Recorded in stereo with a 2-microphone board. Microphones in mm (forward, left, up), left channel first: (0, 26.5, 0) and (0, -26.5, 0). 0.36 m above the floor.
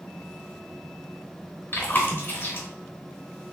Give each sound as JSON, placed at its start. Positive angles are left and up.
{"t": 1.7, "sound": "chewing", "side_deg": 40, "distance_m": 1.0}